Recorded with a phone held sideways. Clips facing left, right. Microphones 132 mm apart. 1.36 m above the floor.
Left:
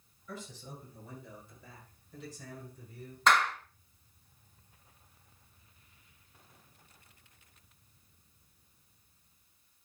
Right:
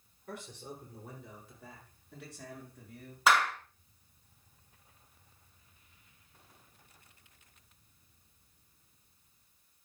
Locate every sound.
0.3 s a man speaking: 80° right, 5 m; by 3.2 s 90° right, 7.5 m
3.3 s a clap: 5° right (ahead or behind), 2.0 m